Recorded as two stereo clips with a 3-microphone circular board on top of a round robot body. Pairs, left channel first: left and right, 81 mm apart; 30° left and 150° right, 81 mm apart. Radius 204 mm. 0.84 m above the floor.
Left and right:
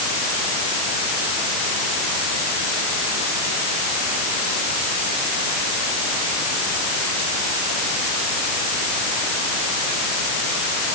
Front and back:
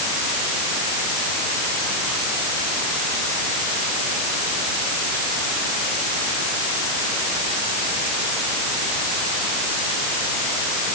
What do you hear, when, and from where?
Only background noise.